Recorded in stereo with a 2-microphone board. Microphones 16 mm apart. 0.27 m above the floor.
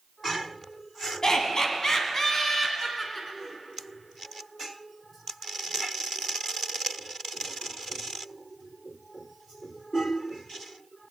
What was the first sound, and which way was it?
Laughter, 35° left (ahead or behind).